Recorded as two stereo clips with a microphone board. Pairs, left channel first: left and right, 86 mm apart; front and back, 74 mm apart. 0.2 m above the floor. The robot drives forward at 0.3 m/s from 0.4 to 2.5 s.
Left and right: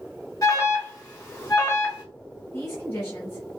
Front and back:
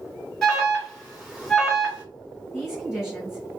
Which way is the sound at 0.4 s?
80° left.